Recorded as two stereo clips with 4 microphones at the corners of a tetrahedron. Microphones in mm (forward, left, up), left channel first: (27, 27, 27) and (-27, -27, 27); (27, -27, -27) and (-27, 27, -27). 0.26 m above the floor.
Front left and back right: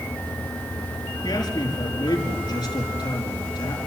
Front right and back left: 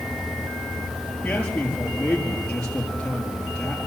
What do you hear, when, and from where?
1.2 s a man speaking: 30° left, 5 m